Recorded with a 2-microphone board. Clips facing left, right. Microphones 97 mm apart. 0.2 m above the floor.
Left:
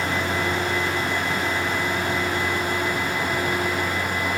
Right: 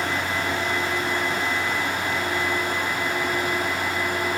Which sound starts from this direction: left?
A vehicle, at 0.0 s.